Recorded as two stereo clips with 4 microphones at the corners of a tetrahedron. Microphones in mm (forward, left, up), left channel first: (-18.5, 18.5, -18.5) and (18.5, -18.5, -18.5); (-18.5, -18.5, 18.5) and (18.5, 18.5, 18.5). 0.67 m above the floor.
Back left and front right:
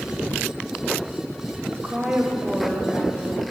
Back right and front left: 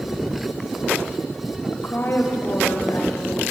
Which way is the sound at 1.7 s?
100° right.